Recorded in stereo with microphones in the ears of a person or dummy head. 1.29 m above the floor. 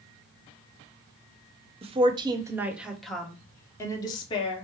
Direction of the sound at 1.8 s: 30° right (ahead or behind).